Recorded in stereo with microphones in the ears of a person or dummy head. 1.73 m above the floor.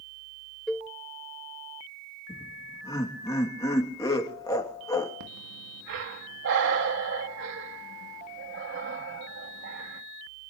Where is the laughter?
15° left (ahead or behind), 3 m.